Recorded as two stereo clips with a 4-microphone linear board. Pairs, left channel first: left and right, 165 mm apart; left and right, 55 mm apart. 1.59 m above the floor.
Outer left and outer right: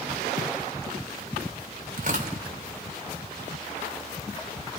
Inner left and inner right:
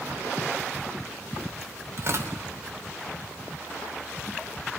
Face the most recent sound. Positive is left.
turn(degrees=-55)  # may be behind; listen again after turning